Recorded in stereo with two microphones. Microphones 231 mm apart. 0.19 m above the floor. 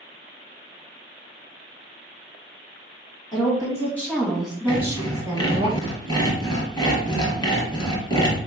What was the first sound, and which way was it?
A woman speaking, 20° left (ahead or behind).